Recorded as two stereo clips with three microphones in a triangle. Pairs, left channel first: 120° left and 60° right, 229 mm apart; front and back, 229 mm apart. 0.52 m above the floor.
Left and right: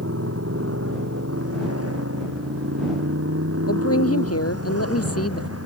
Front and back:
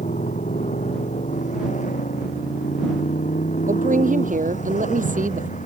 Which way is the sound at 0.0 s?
60° right.